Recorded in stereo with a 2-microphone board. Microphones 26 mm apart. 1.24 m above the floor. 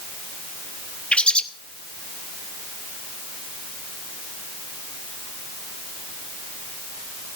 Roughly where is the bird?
Left.